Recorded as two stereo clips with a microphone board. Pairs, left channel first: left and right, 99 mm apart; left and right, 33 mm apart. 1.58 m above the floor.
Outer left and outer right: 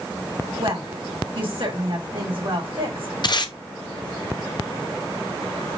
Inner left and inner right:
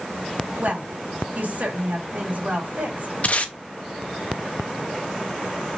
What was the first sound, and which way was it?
A woman speaking, 60° right (ahead or behind).